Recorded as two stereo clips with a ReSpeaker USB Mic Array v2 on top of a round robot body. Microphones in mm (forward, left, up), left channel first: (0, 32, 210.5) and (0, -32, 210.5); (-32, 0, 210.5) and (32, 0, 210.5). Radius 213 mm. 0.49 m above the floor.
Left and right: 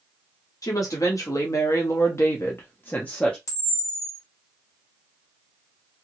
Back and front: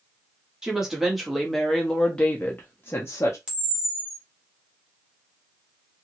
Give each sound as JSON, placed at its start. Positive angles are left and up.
{"t": 0.6, "sound": "a woman speaking", "azimuth_deg": 80, "distance_m": 1.6}
{"t": 3.5, "sound": "a camera shutter", "azimuth_deg": 75, "distance_m": 1.7}